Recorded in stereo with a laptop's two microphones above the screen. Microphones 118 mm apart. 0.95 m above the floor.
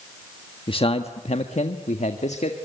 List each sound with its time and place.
0.7 s a man speaking: 45° left (ahead or behind), 1.5 m; by 2.6 s 70° left (ahead or behind), 2 m